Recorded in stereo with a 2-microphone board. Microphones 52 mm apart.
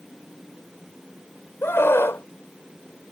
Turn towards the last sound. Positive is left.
turn(degrees=50)  # may be behind; listen again after turning